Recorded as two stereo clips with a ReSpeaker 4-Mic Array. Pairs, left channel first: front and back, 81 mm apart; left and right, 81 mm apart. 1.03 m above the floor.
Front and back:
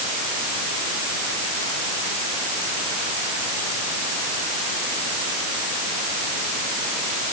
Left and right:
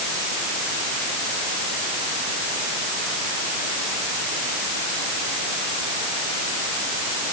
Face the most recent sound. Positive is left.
No sound to turn to.